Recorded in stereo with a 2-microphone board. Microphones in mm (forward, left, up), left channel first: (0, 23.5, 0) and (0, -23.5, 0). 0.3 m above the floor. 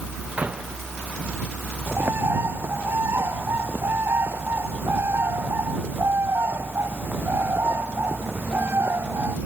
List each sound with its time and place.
0.4 s a door slam: 30° right (ahead or behind)
1.9 s a bird: 60° right (ahead or behind)